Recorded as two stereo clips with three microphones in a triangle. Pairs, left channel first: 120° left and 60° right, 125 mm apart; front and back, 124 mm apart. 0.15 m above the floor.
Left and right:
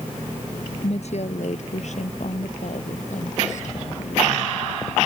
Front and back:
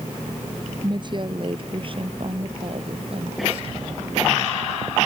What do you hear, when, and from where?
0.8 s a woman speaking: 135° left; by 4.6 s 140° left